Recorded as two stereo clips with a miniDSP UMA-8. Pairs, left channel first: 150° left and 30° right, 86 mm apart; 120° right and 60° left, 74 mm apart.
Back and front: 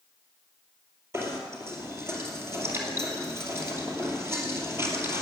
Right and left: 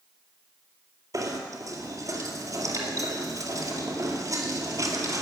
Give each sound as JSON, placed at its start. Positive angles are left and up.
{"t": 1.1, "sound": "knocking", "azimuth_deg": 25, "distance_m": 2.0}